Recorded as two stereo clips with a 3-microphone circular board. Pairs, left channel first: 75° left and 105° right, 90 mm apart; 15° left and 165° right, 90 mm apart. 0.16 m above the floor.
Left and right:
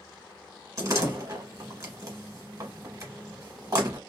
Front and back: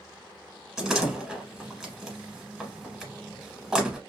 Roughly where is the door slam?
Right.